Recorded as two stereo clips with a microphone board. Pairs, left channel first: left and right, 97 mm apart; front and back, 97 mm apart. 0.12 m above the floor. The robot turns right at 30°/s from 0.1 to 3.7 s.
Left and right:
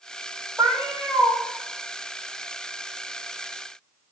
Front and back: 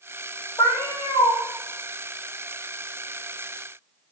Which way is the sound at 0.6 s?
25° right.